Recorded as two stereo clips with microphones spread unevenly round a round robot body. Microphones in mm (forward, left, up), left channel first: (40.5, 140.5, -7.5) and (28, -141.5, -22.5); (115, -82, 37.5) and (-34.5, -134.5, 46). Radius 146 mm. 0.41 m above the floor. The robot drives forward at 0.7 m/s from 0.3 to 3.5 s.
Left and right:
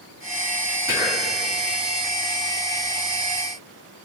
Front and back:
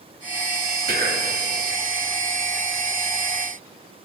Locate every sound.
0.9 s whispering: 165° right, 2 m; by 1.3 s 170° right, 2.5 m